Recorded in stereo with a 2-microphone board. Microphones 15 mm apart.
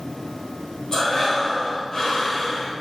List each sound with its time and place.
0.9 s breathing: 45° left (ahead or behind), 1.7 m